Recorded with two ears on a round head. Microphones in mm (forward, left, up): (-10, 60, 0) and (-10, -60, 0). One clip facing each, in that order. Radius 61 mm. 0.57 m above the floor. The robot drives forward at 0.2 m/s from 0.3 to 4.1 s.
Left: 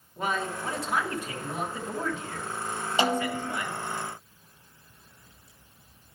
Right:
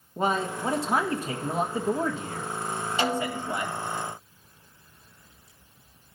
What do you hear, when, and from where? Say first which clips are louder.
0.2 s a man speaking: right 4 dB; 25° right (ahead or behind), 1.0 m
3.0 s a snare drum: left 2 dB; 20° left (ahead or behind), 1.0 m